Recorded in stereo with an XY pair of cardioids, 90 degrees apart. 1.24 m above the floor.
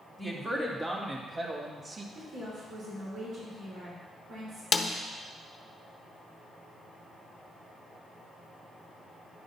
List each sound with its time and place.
0.2 s a woman speaking: 20° right, 2.5 m; by 2.0 s 45° right, 1.6 m
2.1 s a woman speaking: 70° right, 5 m
4.7 s a snare drum: 50° left, 0.8 m